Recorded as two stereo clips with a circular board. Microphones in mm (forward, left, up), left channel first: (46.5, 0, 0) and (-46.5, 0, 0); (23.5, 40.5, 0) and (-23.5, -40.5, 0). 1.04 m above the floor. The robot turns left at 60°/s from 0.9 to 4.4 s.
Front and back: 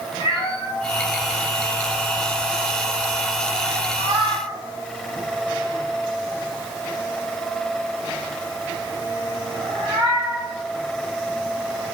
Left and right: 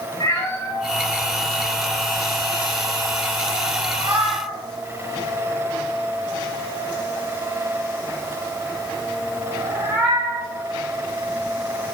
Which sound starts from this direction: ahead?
A cat meowing, at 0.2 s.